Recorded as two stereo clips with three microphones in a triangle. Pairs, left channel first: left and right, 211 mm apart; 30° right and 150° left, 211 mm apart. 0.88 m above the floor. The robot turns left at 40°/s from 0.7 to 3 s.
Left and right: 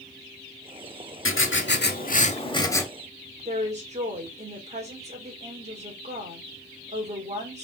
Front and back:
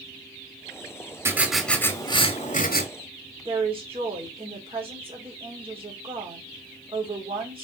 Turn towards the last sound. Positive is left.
turn(degrees=-145)